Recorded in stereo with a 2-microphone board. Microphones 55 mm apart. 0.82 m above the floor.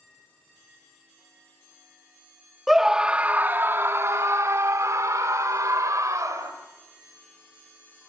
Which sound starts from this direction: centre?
A scream, at 2.7 s.